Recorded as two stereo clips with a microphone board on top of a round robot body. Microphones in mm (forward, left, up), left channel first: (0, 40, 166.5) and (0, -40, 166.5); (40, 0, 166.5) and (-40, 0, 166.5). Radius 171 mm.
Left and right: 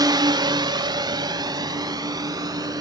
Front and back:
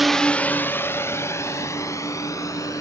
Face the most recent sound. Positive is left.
turn(degrees=-50)